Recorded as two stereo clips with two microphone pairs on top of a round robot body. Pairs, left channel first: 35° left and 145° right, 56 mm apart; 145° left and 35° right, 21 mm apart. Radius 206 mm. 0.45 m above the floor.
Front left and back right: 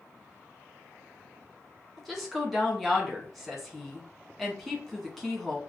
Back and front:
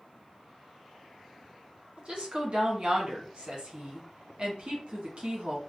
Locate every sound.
2.0 s a woman speaking: 55° right, 1.6 m